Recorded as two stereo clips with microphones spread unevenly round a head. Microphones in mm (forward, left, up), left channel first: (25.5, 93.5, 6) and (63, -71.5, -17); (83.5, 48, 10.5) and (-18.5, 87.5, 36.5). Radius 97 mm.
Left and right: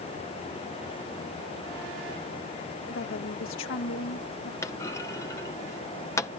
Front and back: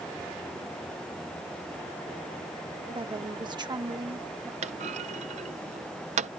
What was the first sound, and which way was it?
A woman speaking, 115° left.